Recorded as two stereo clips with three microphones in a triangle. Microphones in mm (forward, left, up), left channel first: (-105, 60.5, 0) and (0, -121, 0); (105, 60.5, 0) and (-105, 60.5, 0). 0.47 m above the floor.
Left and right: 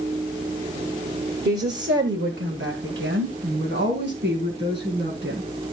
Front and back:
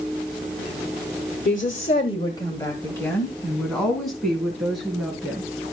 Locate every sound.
1.4 s a woman speaking: 35° right, 1.3 m; by 5.5 s 95° right, 5 m